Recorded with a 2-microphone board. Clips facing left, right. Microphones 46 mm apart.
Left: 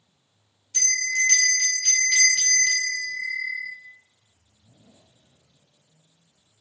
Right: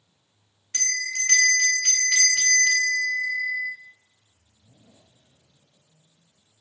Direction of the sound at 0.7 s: 65° right (ahead or behind).